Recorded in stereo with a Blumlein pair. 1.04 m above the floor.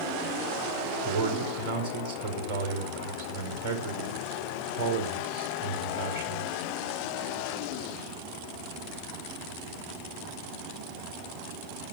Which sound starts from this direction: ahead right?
A man speaking, at 1.1 s.